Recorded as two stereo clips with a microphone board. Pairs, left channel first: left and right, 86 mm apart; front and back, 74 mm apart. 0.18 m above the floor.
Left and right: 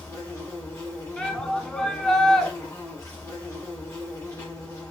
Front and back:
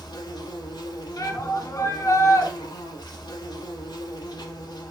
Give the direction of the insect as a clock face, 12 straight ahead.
11 o'clock.